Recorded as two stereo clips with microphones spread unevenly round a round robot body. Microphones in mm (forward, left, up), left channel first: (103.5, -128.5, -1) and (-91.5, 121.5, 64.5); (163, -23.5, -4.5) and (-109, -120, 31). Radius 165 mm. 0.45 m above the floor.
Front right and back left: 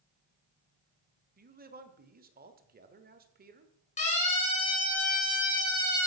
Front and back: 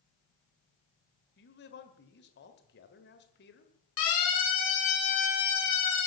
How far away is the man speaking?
About 1.9 m.